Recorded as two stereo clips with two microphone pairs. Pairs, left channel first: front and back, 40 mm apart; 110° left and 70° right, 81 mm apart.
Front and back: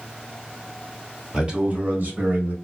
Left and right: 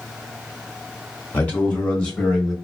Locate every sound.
1.3 s a man speaking: 140° left, 0.8 m; by 2.5 s 170° right, 1.6 m